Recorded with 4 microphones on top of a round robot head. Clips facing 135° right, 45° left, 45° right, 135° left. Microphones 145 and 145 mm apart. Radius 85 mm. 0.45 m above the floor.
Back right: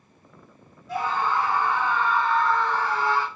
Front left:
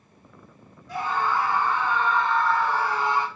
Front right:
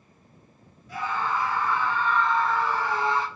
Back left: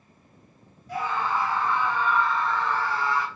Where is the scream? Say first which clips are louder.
Back right 1 dB, back left 1 dB; 170° left, 1.4 m; by 3.3 s 10° right, 1.1 m.